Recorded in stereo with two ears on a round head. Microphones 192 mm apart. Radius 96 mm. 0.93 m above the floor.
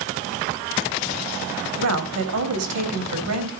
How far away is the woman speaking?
About 4 m.